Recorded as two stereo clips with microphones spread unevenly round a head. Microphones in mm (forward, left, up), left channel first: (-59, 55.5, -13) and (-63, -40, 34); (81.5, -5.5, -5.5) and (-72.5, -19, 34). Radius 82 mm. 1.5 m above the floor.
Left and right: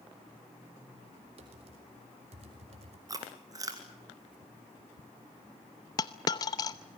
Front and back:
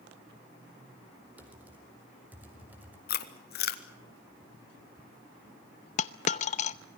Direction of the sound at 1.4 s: 95° right.